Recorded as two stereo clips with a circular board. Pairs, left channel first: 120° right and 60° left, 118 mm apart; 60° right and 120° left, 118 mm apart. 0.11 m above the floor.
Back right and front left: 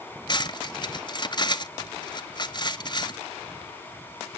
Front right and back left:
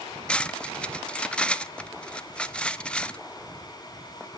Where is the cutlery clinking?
135° right, 0.9 m.